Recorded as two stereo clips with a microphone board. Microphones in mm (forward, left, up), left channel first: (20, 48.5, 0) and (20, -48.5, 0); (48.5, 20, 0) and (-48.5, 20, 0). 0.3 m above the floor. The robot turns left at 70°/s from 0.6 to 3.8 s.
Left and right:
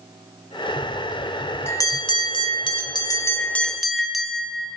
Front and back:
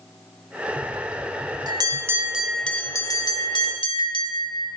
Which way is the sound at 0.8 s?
155° right.